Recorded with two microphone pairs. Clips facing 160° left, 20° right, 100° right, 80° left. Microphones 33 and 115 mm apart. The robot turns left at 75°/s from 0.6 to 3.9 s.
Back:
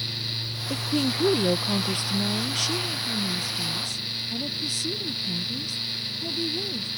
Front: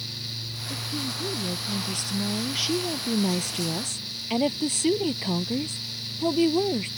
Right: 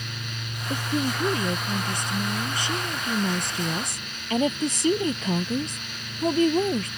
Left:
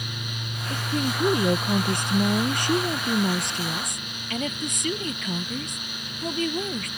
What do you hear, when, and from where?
0.7 s a woman speaking: 165° right; by 6.9 s 45° right